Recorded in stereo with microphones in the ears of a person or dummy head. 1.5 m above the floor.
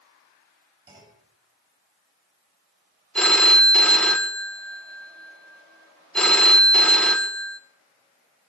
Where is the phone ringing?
5° left (ahead or behind), 0.9 m.